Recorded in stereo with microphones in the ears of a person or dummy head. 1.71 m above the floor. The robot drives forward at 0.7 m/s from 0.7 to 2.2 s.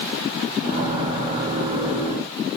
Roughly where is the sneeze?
I don't hear a sneeze.